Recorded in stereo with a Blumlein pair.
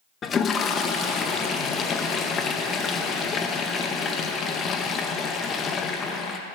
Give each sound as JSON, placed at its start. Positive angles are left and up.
{"t": 0.2, "sound": "a toilet flushing", "azimuth_deg": 20, "distance_m": 0.7}